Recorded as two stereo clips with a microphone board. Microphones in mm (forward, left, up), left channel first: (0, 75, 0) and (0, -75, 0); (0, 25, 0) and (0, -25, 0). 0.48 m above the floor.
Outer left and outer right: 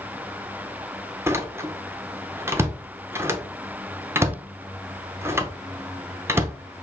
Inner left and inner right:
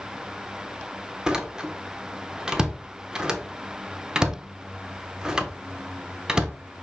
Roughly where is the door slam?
Centre.